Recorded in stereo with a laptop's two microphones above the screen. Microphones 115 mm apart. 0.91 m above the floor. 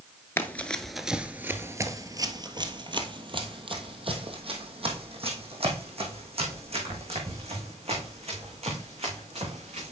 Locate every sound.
0.4 s running footsteps: 20° left (ahead or behind), 0.9 m; by 9.9 s 65° right (ahead or behind), 5.5 m